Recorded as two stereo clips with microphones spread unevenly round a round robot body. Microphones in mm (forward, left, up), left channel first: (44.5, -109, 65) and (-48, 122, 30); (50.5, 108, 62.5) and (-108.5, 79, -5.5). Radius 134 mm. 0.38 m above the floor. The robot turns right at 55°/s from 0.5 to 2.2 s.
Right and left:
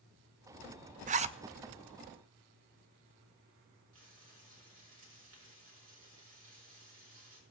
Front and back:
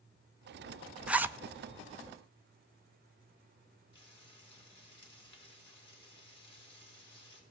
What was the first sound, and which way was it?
A zipper, 140° left.